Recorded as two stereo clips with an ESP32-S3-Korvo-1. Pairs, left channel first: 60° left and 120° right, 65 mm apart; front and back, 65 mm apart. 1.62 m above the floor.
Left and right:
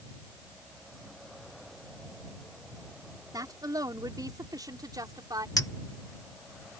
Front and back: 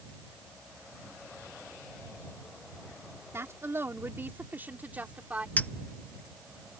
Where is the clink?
60° left.